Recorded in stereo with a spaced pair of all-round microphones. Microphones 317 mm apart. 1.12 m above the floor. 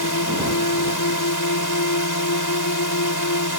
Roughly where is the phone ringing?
I don't hear a phone ringing.